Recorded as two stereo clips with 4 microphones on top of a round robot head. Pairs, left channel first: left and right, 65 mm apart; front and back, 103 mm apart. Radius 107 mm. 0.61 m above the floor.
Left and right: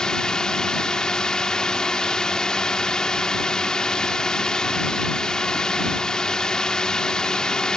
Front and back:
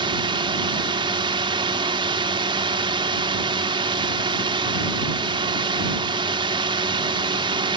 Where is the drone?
165° left.